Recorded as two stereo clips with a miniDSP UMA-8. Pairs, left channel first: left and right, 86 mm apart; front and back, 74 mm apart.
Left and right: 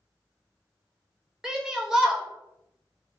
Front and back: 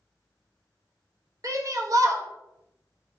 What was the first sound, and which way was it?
A shout, 170° right.